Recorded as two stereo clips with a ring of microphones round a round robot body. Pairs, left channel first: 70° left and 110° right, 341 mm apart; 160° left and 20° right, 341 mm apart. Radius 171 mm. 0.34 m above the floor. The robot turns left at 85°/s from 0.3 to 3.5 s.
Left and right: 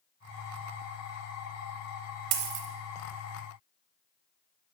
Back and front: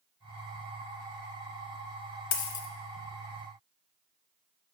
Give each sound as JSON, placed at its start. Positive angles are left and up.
{"t": 2.3, "sound": "a dropped coin", "azimuth_deg": -145, "distance_m": 0.6}